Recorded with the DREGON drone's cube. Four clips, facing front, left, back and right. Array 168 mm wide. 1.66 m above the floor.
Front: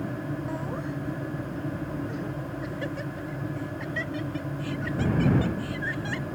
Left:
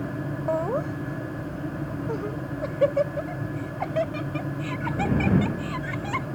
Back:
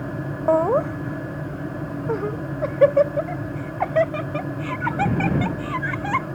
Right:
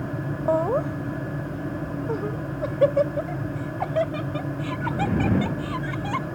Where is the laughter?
165° right; by 6.3 s 170° right.